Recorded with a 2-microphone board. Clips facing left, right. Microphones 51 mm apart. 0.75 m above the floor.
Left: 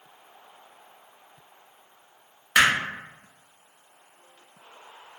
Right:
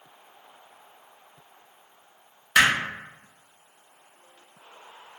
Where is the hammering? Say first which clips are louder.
Even; 15° left (ahead or behind), 0.7 m.